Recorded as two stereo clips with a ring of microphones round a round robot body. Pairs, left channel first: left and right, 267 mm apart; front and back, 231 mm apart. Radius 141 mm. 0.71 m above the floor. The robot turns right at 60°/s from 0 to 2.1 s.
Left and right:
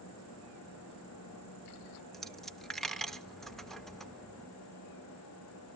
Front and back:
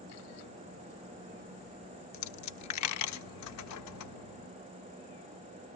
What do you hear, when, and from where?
2.1 s a dropped coin: straight ahead, 0.7 m